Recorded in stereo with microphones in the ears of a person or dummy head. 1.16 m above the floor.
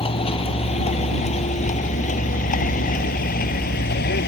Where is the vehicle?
30° left (ahead or behind); by 4.3 s 60° left (ahead or behind).